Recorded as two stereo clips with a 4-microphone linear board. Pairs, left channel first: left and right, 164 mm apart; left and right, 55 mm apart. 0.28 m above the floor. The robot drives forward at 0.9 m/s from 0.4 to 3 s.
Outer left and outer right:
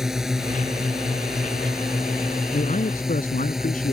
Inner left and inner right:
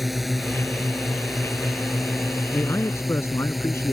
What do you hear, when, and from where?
0.0 s a drone: 5° right (ahead or behind); by 3.9 s centre (ahead or behind)
2.5 s a man speaking: 50° left (ahead or behind); by 3.9 s 55° left (ahead or behind)